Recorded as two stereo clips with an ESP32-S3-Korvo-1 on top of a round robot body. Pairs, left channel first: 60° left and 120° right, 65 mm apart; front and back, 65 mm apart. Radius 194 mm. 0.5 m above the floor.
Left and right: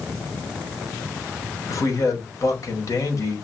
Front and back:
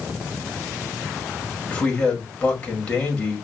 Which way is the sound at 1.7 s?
70° left.